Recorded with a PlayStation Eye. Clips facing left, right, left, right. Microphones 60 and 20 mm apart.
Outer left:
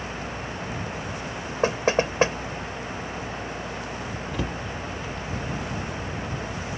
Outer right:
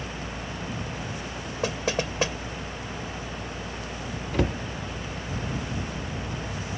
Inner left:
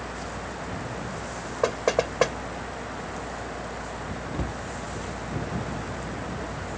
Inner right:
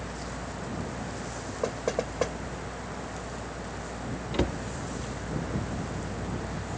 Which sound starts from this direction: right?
A cupboard door, at 4.3 s.